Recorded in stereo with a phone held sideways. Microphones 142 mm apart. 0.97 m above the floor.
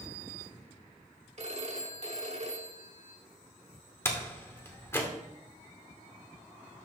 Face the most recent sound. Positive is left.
turn(degrees=15)  # may be behind; listen again after turning